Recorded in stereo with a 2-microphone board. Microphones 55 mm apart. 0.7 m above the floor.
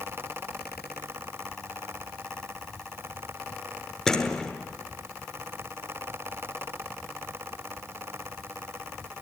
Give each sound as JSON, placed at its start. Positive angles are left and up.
{"t": 4.1, "sound": "a door slam", "side_deg": 10, "distance_m": 7.0}